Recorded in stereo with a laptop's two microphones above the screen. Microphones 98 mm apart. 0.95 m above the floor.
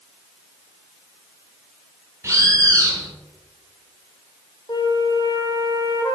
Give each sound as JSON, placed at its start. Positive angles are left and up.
{"t": 2.2, "sound": "a bird", "side_deg": -30, "distance_m": 1.6}
{"t": 4.7, "sound": "a flute", "side_deg": 45, "distance_m": 1.4}